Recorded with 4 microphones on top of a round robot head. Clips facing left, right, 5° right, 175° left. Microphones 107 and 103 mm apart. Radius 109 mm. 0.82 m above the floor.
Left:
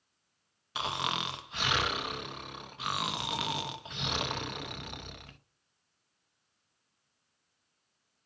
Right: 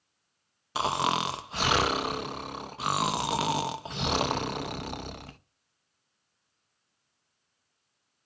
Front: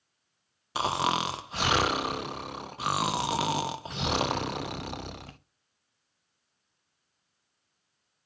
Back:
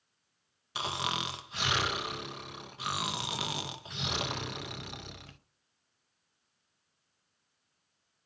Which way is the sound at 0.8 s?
45° right.